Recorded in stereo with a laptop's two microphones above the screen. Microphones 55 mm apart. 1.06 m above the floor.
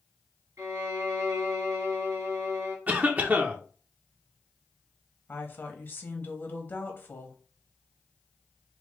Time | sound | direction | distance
0.6 | a violin | 70° right (ahead or behind) | 1.3 m
2.9 | a cough | 30° right (ahead or behind) | 0.6 m
5.3 | a woman speaking | 40° left (ahead or behind) | 0.8 m